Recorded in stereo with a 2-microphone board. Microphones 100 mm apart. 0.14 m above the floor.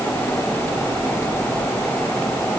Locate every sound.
Only background noise.